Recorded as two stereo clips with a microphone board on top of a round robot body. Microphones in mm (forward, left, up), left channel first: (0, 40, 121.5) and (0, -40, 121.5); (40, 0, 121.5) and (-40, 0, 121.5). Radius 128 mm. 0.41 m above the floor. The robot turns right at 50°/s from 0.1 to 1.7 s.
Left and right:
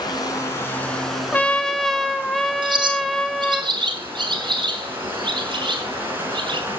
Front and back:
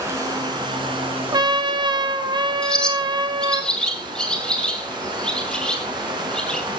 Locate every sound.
0.0 s running water: 125° left, 4 m; by 6.8 s 155° right, 4 m
1.3 s a trumpet: 155° left, 1.4 m; by 3.6 s 175° left, 1.4 m
2.6 s a bird: 80° right, 2.5 m